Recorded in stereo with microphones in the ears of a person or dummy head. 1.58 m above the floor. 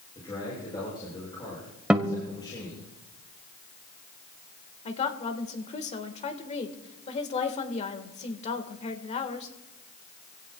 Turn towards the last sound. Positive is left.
turn(degrees=35)  # may be behind; listen again after turning